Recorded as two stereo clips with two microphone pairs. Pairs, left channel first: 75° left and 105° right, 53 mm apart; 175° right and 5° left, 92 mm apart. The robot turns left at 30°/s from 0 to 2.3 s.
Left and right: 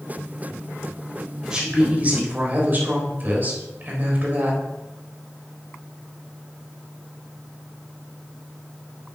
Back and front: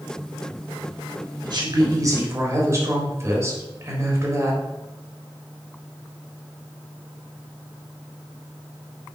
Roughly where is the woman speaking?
Ahead right.